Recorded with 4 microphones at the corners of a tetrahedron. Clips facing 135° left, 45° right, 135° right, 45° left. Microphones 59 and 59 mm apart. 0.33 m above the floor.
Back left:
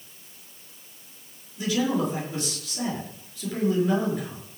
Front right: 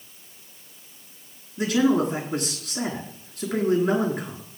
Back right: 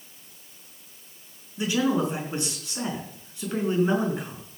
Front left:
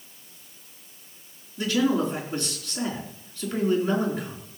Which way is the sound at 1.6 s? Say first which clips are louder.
Front right 4 dB, front left 1 dB; 65° right.